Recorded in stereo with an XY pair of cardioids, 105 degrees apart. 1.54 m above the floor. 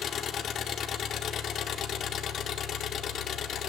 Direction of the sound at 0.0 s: 65° left.